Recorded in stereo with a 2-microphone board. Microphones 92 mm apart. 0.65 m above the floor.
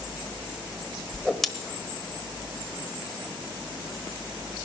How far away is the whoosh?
About 1.1 m.